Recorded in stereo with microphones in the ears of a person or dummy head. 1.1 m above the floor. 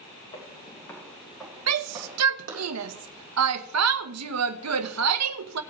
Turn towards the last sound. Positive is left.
turn(degrees=-75)  # may be behind; listen again after turning